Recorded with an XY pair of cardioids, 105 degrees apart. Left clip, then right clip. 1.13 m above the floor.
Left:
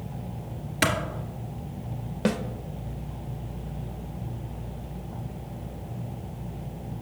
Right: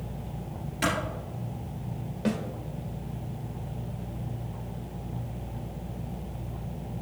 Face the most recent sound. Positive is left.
turn(degrees=55)